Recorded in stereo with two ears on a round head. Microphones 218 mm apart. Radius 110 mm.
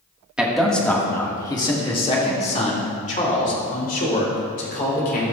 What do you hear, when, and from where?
0.4 s a man speaking: 5° right (ahead or behind), 1.2 m; by 5.3 s 40° left (ahead or behind), 3.5 m